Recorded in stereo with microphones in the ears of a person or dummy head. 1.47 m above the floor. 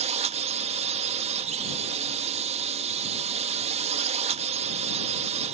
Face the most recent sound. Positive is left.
turn(degrees=-40)  # may be behind; listen again after turning